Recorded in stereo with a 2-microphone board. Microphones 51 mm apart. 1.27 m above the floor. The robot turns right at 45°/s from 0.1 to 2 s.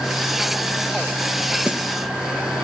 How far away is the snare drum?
About 0.8 m.